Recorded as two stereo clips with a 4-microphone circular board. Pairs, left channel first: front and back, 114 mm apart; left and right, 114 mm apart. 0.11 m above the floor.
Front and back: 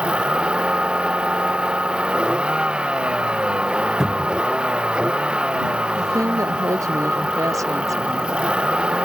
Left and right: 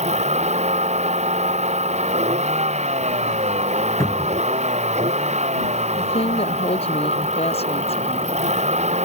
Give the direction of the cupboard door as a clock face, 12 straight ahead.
9 o'clock.